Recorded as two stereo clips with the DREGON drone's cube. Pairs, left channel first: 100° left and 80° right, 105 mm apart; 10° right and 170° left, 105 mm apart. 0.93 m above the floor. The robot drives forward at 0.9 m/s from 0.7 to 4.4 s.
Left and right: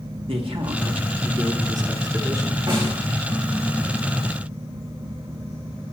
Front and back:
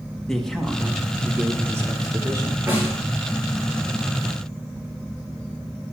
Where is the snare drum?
120° right, 6 m.